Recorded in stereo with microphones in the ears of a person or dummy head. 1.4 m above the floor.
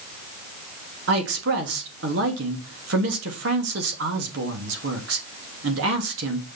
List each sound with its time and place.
1.1 s a man speaking: 75° right (ahead or behind), 3 m